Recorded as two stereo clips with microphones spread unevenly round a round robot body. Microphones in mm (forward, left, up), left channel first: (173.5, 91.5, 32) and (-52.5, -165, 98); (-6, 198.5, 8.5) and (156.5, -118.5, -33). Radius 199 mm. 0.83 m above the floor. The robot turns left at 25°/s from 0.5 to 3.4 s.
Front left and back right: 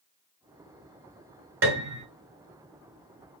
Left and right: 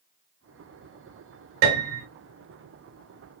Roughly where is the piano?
Right.